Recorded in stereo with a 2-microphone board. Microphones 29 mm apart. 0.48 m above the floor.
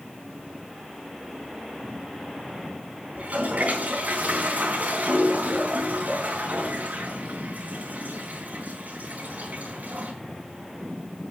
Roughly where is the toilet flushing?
Right.